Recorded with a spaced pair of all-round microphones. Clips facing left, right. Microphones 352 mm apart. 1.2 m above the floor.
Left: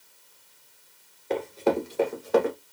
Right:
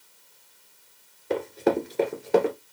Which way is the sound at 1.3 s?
15° right (ahead or behind).